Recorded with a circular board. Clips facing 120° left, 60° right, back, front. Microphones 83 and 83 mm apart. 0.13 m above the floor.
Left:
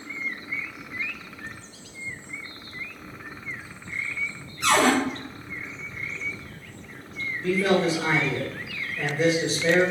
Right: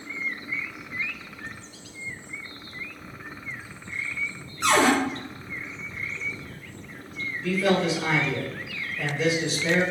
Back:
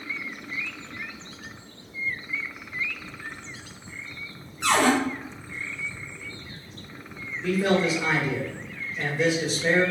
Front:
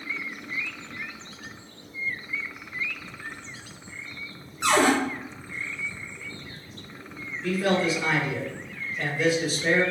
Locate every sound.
4.6 s a cupboard door: 45° right, 1.5 m
7.4 s a man speaking: 120° left, 1.9 m